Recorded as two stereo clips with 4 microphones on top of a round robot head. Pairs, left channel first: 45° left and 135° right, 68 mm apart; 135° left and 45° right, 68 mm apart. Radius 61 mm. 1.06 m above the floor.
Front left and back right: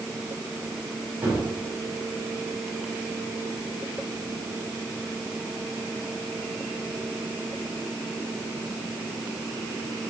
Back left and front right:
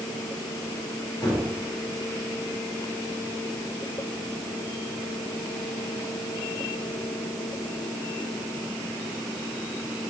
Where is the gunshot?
155° left, 2.5 m.